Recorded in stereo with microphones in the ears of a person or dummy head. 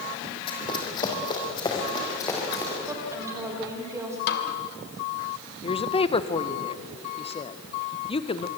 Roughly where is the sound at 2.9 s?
Centre.